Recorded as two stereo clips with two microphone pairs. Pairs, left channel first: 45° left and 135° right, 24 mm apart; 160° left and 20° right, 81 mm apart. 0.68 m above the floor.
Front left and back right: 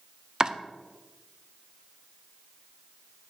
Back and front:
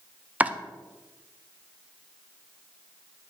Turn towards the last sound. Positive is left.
turn(degrees=-85)